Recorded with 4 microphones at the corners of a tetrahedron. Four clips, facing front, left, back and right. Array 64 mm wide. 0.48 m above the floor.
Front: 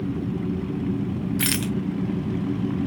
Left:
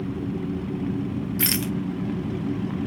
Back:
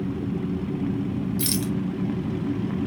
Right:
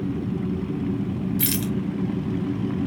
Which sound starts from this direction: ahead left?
A rattle, at 1.4 s.